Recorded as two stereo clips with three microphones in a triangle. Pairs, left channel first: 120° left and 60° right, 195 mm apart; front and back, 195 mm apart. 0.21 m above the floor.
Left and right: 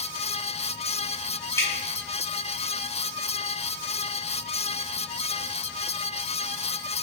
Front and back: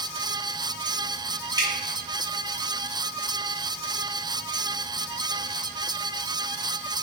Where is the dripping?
165° left, 1.4 m.